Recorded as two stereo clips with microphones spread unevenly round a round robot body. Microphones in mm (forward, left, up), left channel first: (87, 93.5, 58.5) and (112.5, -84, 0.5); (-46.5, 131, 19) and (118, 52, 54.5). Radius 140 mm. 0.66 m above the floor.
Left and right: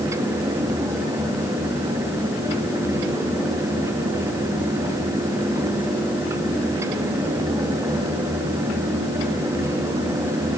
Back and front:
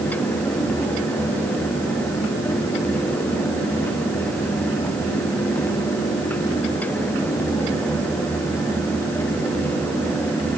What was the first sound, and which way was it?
Only background noise.